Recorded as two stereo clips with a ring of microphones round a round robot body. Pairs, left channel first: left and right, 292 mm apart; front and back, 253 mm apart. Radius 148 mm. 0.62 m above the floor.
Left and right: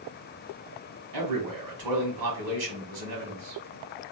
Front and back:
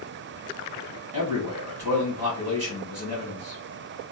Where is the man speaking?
105° right, 2 m.